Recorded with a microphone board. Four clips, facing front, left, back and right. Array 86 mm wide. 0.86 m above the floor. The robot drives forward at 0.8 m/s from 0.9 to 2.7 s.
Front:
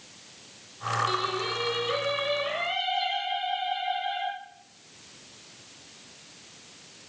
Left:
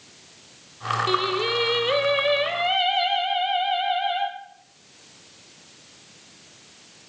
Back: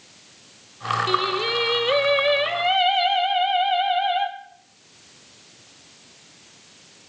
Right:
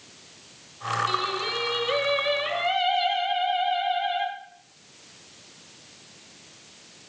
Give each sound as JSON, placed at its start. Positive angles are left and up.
{"t": 1.1, "sound": "singing", "azimuth_deg": 130, "distance_m": 1.6}